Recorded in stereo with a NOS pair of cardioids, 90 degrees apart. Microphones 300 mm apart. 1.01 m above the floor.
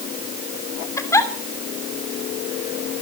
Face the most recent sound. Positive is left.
turn(degrees=10)